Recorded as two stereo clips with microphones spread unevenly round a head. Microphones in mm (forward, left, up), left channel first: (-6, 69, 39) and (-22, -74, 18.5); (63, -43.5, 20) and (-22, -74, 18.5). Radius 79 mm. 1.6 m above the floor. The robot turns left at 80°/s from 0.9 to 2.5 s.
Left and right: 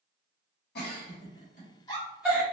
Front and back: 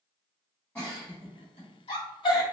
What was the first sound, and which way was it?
A giggle, 95° left.